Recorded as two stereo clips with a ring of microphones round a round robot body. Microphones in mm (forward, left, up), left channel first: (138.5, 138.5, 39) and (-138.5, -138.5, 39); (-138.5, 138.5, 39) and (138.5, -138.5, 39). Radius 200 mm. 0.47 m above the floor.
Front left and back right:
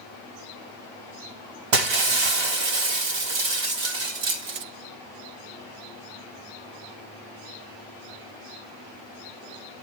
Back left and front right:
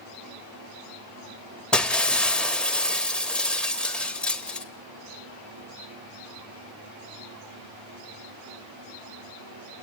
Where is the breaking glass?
135° right, 1.3 m.